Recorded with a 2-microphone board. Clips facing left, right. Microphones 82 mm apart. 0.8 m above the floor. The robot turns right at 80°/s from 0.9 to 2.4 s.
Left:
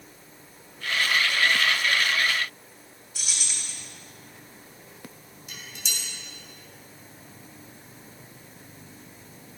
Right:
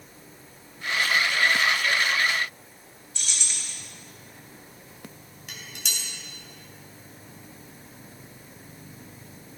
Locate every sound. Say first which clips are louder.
3.1 s keys jangling: even; 5° left (ahead or behind), 3 m
5.5 s dishes clattering: right 1 dB; 60° right (ahead or behind), 3.5 m